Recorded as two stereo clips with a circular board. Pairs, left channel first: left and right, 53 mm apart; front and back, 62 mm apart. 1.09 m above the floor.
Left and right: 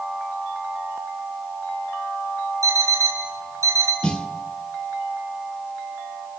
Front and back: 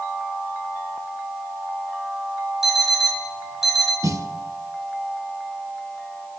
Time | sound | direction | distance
2.6 | an alarm clock | 95° right | 4 m
4.0 | a snare drum | 160° left | 1.2 m